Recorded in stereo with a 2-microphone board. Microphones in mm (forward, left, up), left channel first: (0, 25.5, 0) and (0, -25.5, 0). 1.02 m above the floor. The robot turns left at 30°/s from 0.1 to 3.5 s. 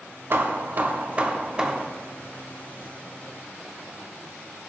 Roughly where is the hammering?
Behind right.